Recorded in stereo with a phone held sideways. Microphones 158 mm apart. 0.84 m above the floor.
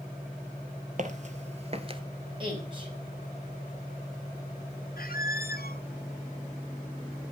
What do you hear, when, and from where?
1.0 s footsteps: 55° right (ahead or behind), 1.3 m; by 2.0 s 35° right (ahead or behind), 0.9 m
2.4 s a woman speaking: 30° right (ahead or behind), 4.5 m
5.0 s a squeak: 70° left (ahead or behind), 0.7 m